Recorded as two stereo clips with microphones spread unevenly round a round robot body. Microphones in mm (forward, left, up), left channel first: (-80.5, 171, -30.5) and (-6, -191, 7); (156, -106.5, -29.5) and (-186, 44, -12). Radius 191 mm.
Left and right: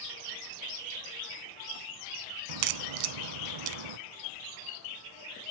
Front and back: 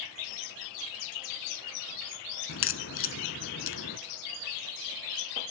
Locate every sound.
2.5 s a crack: 85° right, 0.6 m